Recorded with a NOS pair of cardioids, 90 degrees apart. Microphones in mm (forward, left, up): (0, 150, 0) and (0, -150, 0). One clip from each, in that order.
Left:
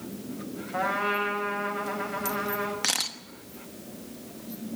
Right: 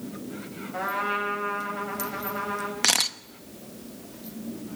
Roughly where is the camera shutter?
Ahead right.